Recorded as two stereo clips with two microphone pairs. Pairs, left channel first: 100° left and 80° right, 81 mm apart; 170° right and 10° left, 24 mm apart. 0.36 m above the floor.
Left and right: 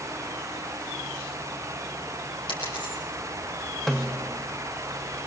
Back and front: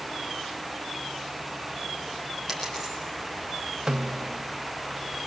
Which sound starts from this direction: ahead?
A snare drum, at 3.9 s.